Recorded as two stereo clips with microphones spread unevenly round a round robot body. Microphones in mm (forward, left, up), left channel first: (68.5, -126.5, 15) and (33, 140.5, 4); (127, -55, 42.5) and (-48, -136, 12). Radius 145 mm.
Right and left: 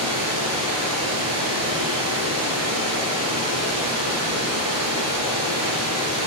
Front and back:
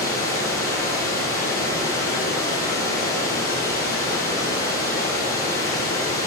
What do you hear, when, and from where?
0.0 s running water: 70° left, 3 m